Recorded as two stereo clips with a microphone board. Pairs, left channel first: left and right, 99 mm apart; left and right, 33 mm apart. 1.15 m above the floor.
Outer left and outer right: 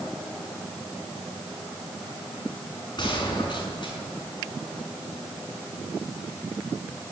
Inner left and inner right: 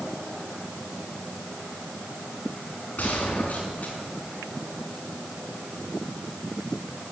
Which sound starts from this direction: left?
A gunshot, at 3.0 s.